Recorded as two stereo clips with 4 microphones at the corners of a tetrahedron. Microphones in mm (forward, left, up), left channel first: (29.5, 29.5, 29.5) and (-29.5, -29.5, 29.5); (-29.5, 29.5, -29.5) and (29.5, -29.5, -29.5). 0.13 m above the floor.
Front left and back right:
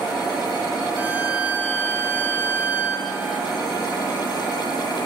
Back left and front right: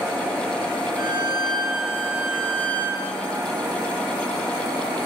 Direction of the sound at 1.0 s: 65° right.